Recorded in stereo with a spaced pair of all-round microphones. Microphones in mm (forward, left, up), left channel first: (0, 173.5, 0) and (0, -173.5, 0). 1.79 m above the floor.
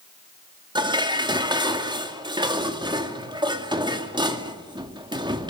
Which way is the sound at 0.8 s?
15° right (ahead or behind).